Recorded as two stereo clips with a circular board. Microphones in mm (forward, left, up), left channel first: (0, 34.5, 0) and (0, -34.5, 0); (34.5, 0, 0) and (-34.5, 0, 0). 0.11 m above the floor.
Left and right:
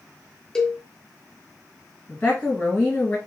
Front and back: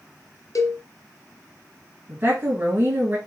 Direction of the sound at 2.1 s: 135° left.